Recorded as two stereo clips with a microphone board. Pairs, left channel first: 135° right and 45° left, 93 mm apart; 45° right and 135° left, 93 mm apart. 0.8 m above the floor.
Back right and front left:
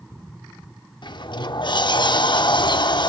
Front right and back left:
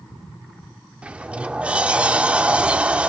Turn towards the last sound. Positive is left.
turn(degrees=-150)